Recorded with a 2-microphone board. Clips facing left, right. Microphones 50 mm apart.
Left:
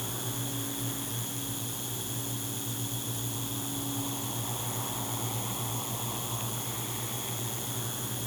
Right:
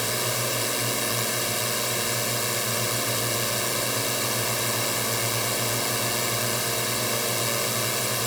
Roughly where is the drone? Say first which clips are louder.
Right 10 dB; right.